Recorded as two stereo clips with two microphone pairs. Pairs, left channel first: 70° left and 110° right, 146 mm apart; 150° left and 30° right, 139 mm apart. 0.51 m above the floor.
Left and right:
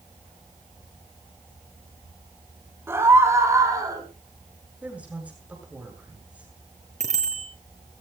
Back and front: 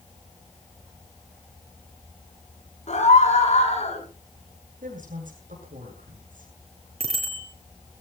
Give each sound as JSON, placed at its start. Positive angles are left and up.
{"t": 2.9, "sound": "a scream", "azimuth_deg": 180, "distance_m": 5.5}
{"t": 4.8, "sound": "a woman speaking", "azimuth_deg": -30, "distance_m": 8.0}
{"t": 7.0, "sound": "a bicycle bell", "azimuth_deg": -75, "distance_m": 6.0}